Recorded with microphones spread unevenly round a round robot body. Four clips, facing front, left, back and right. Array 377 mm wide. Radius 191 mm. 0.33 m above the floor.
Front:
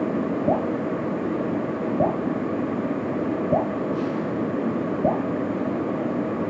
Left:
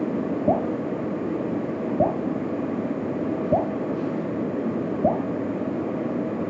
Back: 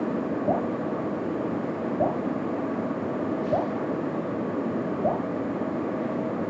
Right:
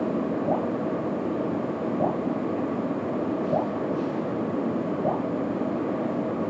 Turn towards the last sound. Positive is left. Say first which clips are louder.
# left 2 dB, front 3 dB
turn(degrees=55)